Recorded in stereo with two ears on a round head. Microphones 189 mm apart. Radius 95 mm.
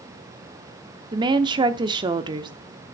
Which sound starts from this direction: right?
A woman speaking, at 1.1 s.